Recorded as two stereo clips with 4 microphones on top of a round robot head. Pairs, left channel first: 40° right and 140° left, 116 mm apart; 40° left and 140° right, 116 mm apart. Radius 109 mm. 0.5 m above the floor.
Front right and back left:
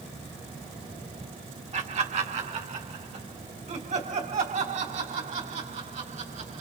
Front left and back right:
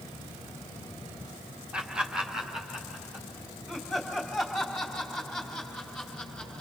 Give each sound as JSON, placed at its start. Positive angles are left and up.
{"t": 1.7, "sound": "laughter", "azimuth_deg": 140, "distance_m": 2.5}